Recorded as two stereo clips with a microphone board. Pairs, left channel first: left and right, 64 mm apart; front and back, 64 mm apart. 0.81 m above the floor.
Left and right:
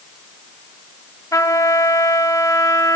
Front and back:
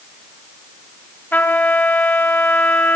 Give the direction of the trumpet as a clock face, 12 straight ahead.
10 o'clock.